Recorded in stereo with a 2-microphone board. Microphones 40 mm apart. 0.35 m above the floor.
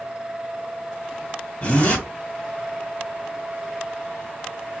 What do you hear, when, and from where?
1.6 s a zipper: 35° left (ahead or behind), 1.6 m